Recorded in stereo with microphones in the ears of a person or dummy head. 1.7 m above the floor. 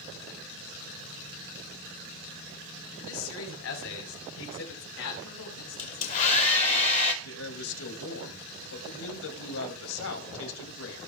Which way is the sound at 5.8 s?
40° left (ahead or behind).